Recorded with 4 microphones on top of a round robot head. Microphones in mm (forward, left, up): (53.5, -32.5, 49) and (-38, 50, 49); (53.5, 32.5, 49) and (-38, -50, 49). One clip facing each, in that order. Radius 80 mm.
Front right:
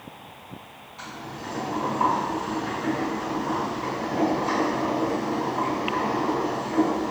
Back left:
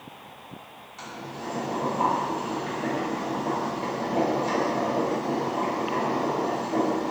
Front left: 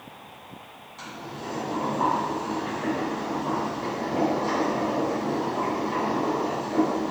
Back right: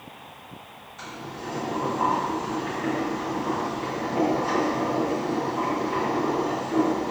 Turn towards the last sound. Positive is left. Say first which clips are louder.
# even, even
turn(degrees=100)